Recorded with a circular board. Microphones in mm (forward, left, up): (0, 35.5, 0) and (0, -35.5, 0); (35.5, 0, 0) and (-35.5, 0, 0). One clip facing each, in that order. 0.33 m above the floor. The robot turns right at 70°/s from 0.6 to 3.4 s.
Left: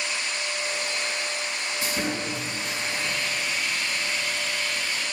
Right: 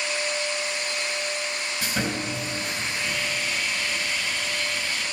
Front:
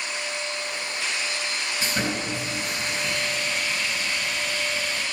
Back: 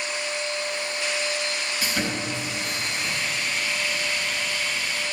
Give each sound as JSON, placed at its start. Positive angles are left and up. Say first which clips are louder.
{"t": 1.8, "sound": "sawing", "louder": "right 1 dB, front 1 dB", "azimuth_deg": -65, "distance_m": 4.0}